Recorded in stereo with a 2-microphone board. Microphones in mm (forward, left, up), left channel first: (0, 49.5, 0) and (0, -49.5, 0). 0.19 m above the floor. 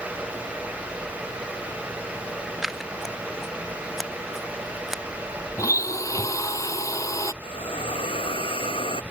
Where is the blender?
35° left (ahead or behind).